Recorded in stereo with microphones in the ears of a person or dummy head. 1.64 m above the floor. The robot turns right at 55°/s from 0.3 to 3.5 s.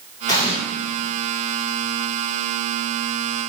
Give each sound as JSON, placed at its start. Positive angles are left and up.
{"t": 0.3, "sound": "an explosion", "side_deg": 20, "distance_m": 1.1}